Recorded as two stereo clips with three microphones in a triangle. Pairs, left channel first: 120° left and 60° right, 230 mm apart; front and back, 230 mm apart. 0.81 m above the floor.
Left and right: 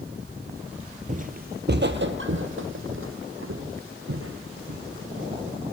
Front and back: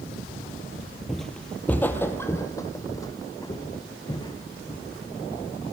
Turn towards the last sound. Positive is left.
turn(degrees=-70)